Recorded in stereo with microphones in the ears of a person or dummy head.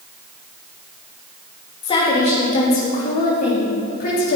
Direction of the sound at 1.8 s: 25° left (ahead or behind).